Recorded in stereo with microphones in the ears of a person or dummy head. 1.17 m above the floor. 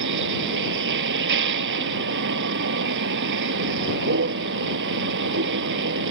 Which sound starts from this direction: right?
A vehicle, at 0.0 s.